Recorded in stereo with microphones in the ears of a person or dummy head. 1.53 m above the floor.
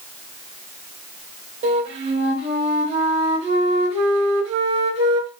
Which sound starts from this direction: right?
A flute, at 1.6 s.